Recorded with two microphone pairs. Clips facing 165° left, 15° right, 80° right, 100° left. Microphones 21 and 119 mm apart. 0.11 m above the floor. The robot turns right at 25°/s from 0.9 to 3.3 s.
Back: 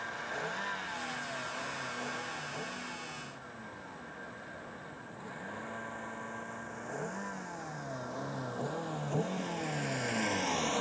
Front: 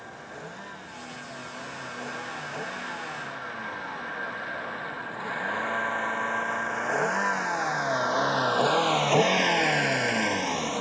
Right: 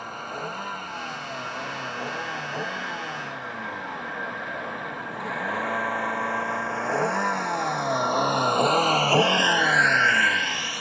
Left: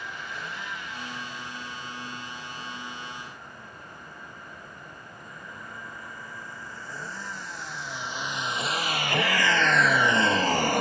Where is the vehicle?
125° right; by 10.8 s 65° left.